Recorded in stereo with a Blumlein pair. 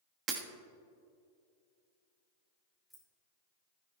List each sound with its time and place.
0.3 s breaking glass: 30° right, 1.3 m
2.9 s keys jangling: straight ahead, 2.5 m